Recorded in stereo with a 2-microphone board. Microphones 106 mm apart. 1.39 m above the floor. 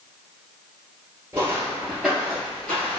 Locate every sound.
1.3 s footsteps: 25° right (ahead or behind), 1.4 m; by 3.0 s 15° left (ahead or behind), 1.4 m